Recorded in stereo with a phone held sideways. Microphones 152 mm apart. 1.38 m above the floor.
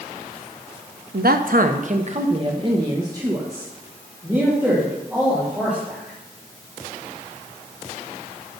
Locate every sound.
1.1 s a man speaking: 90° right, 0.7 m; by 6.2 s 10° right (ahead or behind), 3.5 m